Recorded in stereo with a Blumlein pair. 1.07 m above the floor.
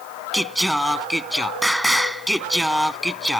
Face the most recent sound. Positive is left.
turn(degrees=0)